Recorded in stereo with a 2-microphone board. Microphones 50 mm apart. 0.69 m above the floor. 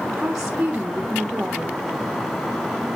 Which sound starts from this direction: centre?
A woman speaking, at 0.1 s.